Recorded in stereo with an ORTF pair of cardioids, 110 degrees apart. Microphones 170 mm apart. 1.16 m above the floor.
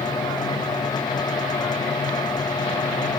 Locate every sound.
0.0 s a fan: 25° left